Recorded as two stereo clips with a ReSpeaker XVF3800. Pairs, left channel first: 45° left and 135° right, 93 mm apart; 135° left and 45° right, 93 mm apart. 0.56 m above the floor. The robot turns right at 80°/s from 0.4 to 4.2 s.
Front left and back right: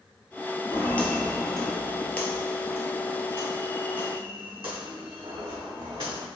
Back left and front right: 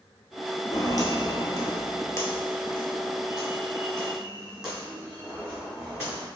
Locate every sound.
0.7 s footsteps: 100° left, 0.8 m; by 6.3 s 130° right, 2.5 m